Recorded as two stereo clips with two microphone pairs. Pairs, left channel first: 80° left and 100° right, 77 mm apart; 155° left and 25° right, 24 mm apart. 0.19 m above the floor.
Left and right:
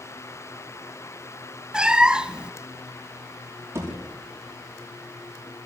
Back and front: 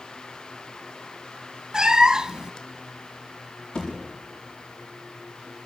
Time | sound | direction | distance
1.7 | a cat meowing | 30° right | 0.6 m
3.8 | a thud | 155° right | 7.5 m